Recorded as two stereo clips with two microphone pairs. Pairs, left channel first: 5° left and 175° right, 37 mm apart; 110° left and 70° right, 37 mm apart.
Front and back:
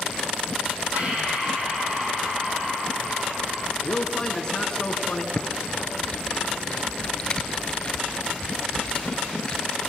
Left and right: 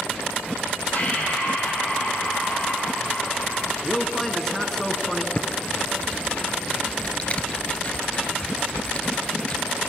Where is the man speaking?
40° left, 1.4 m.